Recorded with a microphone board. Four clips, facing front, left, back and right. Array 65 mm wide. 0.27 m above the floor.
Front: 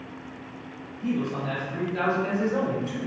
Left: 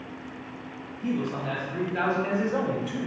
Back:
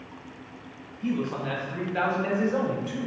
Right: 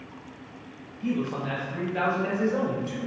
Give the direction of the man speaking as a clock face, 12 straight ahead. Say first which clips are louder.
Even, front 1 dB; 5 o'clock.